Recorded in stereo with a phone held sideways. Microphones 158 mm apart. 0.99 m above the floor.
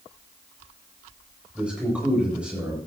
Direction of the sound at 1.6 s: 5° right (ahead or behind).